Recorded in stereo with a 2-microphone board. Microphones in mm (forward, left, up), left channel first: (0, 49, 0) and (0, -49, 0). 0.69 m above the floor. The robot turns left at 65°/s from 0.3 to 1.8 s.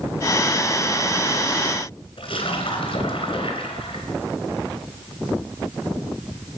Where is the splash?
70° left (ahead or behind), 3 m.